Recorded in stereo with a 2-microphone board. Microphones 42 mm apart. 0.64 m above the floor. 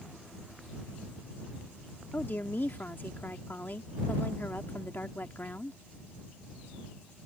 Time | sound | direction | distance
2.1 | a woman speaking | 50° left (ahead or behind) | ?